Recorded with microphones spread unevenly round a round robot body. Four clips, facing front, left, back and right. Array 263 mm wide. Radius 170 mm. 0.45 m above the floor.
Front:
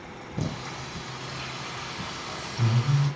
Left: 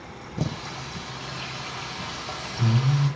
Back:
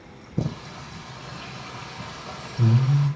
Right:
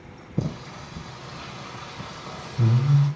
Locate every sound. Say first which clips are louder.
0.4 s singing: right 1 dB, back 3 dB; 130° right, 5.5 m